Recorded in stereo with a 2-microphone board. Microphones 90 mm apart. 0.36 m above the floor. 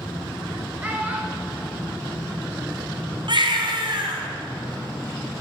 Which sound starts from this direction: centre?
A child speaking, at 0.8 s.